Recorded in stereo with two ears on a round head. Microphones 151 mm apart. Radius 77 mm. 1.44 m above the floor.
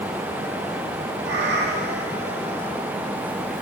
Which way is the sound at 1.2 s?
70° right (ahead or behind).